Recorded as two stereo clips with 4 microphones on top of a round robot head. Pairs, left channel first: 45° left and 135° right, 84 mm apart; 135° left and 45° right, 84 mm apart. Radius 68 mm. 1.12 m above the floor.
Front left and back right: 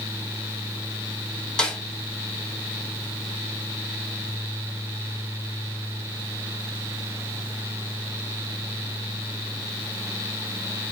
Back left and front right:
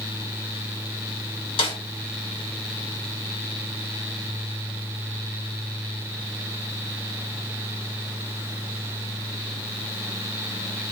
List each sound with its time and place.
1.6 s a snare drum: 125° left, 4 m